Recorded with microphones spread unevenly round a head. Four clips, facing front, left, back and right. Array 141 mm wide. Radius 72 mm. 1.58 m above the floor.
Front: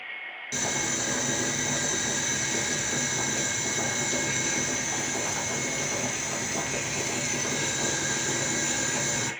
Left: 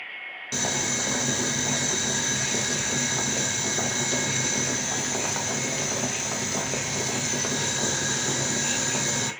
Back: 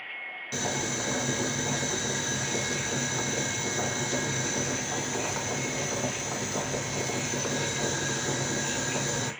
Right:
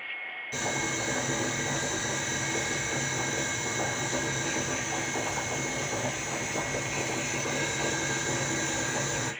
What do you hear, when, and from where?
0.5 s boiling: 80° left, 0.8 m